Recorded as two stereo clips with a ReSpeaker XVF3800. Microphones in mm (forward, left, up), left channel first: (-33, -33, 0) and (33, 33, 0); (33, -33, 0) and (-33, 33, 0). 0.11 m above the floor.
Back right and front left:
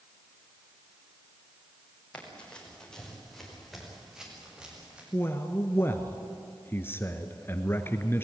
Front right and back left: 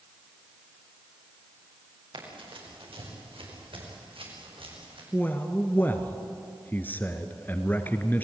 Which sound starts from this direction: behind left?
Running footsteps, at 2.1 s.